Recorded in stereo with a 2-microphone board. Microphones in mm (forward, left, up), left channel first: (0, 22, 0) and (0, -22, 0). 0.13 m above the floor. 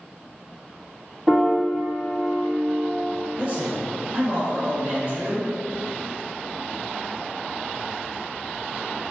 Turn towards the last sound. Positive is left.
turn(degrees=-30)  # may be behind; listen again after turning